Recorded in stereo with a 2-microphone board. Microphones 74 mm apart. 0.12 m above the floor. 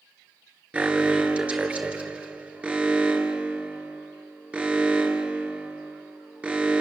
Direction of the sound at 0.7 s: 15° right (ahead or behind).